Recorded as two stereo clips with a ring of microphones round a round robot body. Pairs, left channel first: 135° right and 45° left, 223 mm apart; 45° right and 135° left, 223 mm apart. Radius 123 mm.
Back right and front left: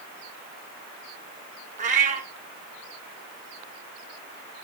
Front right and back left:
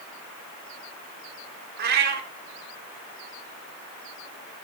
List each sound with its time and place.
1.8 s a cat meowing: 95° left, 1.3 m